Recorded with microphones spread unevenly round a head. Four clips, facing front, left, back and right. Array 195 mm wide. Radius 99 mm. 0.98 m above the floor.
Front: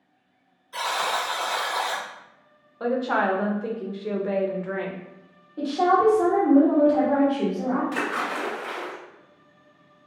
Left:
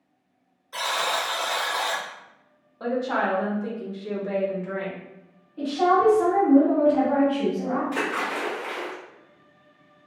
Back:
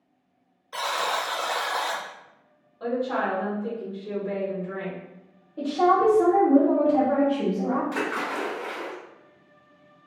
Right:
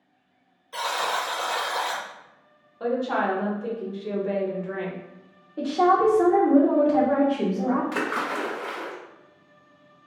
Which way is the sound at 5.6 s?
105° right.